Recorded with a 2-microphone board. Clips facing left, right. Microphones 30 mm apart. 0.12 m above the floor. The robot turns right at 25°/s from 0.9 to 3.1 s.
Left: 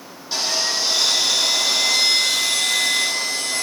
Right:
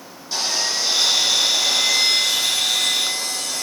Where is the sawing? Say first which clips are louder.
Left 1 dB; 20° left, 5 m; by 3.6 s 75° left, 5 m.